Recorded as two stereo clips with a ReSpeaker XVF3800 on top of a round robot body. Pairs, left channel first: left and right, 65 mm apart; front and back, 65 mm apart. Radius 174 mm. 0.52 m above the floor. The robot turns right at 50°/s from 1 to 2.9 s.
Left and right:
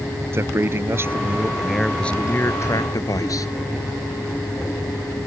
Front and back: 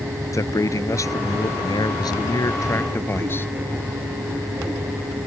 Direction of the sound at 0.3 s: 35° right.